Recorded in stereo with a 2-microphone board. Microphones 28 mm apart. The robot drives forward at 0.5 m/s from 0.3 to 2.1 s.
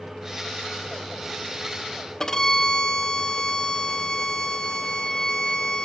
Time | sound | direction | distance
2.2 | a violin | 25° left (ahead or behind) | 1.1 m